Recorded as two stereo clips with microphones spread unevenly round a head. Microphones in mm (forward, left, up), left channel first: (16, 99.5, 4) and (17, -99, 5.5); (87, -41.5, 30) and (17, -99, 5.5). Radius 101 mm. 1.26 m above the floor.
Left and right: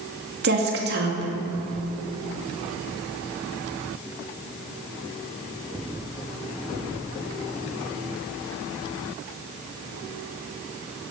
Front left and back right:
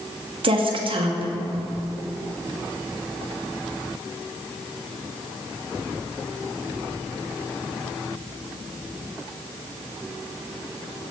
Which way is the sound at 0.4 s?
130° right.